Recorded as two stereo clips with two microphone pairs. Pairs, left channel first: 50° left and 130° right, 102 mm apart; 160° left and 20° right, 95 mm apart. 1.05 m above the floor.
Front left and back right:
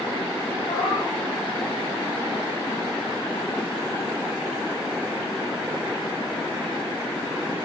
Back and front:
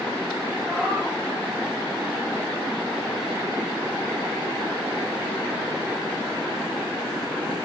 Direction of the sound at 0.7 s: 70° left.